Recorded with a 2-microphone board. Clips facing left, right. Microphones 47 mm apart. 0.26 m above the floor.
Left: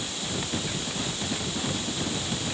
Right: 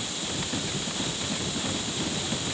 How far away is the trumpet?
No trumpet in this recording.